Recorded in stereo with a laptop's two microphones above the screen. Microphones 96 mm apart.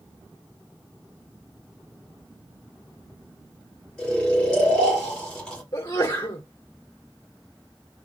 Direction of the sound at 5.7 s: 45° left (ahead or behind).